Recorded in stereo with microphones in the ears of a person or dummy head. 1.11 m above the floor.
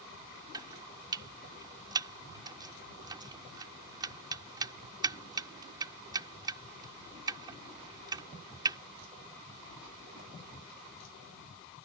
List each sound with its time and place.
0.5 s chopping: 20° right (ahead or behind)